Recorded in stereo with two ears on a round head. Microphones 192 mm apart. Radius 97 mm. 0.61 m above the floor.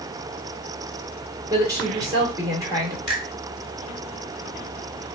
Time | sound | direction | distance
1.5 | a woman speaking | 15° right (ahead or behind) | 1.7 m
3.1 | a finger snap | 5° left (ahead or behind) | 2.5 m